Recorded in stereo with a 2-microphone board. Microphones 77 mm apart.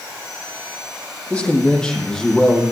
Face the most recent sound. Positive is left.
turn(degrees=0)  # may be behind; listen again after turning